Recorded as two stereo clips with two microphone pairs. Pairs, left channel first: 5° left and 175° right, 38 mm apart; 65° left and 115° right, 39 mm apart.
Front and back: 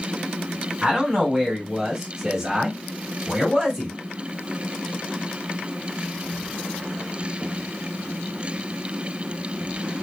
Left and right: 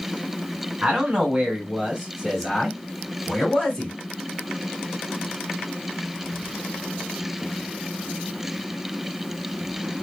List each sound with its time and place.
0.8 s a man speaking: 115° right, 1.7 m; by 3.9 s 100° left, 1.7 m